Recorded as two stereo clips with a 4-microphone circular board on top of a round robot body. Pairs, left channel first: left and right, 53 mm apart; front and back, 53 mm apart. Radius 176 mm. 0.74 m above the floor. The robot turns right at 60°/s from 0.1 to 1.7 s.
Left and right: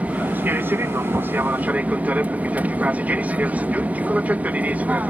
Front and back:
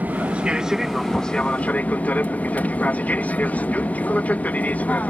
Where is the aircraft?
140° right; by 5.1 s 45° right.